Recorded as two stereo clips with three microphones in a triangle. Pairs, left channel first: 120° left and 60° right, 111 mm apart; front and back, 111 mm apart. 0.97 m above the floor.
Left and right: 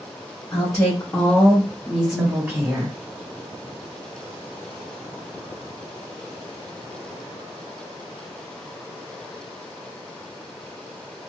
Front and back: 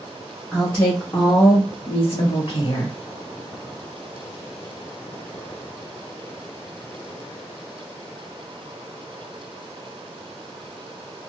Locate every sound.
0.5 s a woman speaking: 85° left, 1.1 m; by 3.0 s 5° right, 1.4 m